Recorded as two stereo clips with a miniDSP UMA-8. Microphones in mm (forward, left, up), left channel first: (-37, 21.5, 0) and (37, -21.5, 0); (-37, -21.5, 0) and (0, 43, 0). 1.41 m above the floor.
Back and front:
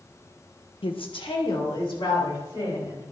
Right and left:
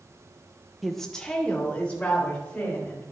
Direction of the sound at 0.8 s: 150° left.